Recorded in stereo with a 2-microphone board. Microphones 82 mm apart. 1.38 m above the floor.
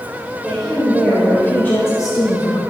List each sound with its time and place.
0.4 s a woman speaking: 5° right (ahead or behind), 3.5 m; by 2.6 s 70° left (ahead or behind), 1.8 m